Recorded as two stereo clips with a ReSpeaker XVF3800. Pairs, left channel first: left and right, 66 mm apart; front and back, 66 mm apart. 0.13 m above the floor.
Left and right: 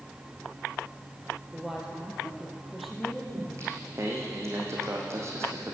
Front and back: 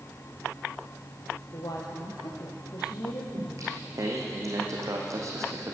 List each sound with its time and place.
1.5 s a woman speaking: 15° right, 3 m; by 3.2 s straight ahead, 3.5 m
3.3 s singing: 140° right, 3 m